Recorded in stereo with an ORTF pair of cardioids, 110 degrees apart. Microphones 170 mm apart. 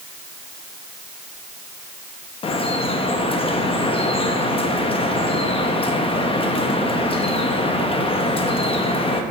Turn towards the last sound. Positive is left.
turn(degrees=35)